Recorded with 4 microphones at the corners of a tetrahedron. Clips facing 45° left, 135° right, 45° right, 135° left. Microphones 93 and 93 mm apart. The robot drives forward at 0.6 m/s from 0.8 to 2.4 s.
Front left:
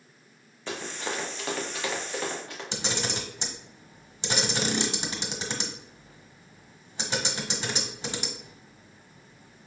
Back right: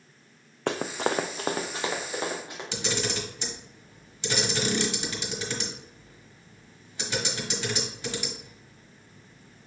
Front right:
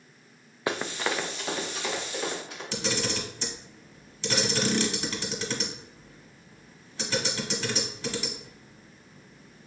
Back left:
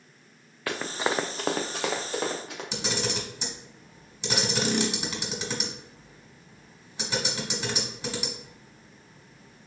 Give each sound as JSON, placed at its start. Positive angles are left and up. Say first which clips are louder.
{"t": 0.7, "sound": "running footsteps", "louder": "back right 7 dB, back left 1 dB", "azimuth_deg": -115, "distance_m": 0.7}
{"t": 2.7, "sound": "a camera shutter", "louder": "back right 2 dB, front right 1 dB", "azimuth_deg": 85, "distance_m": 1.2}